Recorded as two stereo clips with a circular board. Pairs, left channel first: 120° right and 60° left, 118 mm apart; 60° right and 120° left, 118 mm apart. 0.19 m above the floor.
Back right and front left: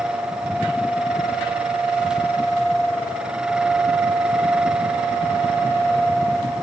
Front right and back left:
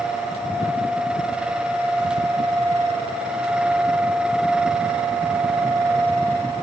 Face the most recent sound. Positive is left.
No sound to turn to.